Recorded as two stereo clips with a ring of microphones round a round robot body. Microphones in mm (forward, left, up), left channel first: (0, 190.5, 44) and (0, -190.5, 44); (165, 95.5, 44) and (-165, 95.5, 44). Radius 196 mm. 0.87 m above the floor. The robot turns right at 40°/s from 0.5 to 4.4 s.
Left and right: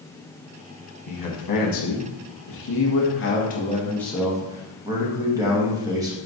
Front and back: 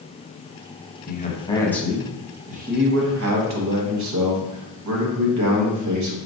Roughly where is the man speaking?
Ahead left.